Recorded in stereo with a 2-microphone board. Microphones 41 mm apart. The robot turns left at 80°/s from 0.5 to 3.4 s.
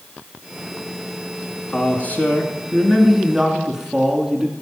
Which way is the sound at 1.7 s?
120° left.